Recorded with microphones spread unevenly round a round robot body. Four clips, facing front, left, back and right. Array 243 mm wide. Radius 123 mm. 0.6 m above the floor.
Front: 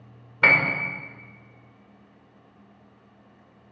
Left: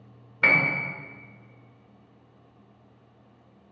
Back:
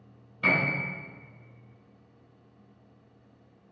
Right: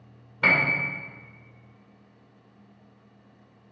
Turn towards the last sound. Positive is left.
turn(degrees=0)